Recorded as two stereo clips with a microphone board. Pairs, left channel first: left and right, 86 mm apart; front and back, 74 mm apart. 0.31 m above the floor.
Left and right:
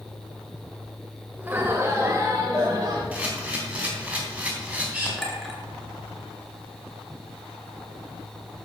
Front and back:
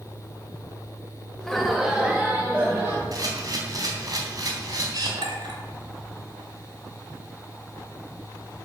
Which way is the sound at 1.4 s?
65° right.